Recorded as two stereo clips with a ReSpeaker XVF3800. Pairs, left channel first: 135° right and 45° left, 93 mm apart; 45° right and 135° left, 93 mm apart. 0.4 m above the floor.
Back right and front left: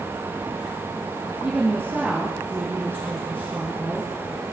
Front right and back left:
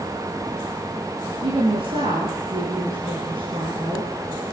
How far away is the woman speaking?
About 7.5 m.